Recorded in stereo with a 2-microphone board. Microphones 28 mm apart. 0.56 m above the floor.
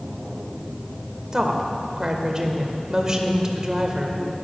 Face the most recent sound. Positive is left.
turn(degrees=-20)  # may be behind; listen again after turning